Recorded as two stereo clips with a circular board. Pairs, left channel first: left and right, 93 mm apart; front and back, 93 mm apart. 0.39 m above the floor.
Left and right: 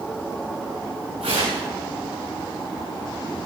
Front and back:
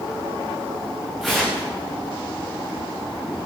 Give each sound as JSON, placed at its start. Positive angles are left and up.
{"t": 1.2, "sound": "tearing paper", "azimuth_deg": -90, "distance_m": 6.5}